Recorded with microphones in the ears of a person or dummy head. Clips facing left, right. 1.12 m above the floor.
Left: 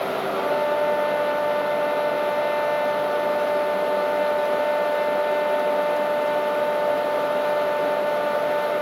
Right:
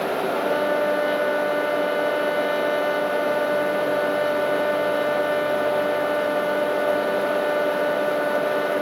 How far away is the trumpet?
About 1.2 m.